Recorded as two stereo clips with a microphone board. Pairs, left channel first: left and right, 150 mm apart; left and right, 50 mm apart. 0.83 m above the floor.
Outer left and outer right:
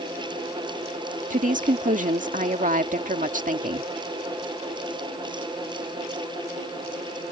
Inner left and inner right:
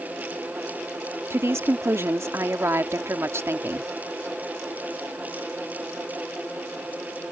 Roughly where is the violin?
I don't hear a violin.